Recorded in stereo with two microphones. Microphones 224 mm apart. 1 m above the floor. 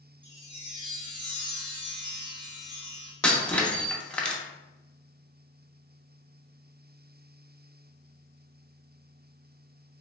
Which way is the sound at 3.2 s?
5° left (ahead or behind).